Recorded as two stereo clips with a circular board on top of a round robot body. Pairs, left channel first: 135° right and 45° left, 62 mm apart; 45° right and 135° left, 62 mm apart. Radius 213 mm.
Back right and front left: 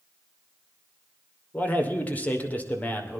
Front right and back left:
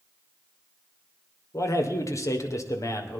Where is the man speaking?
70° right, 3 m.